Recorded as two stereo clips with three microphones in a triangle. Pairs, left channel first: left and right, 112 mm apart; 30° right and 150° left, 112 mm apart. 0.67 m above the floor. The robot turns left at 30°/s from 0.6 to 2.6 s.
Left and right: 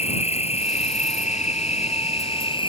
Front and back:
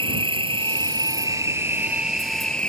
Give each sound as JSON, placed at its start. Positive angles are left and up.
{"t": 0.0, "sound": "an insect", "azimuth_deg": 110}